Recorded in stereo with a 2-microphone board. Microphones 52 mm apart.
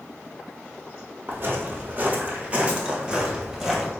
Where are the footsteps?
40° right (ahead or behind), 1.3 m; by 3.9 s 5° right (ahead or behind), 1.2 m.